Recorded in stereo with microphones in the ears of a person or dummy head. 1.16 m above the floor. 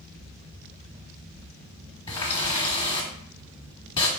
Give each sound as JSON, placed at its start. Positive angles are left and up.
{"t": 2.1, "sound": "a running tap", "side_deg": 30, "distance_m": 1.2}